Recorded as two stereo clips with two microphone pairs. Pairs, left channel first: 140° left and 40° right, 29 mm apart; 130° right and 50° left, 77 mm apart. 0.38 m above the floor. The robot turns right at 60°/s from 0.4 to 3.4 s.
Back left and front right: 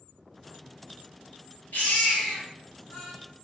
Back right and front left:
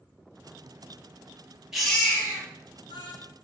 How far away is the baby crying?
About 3 m.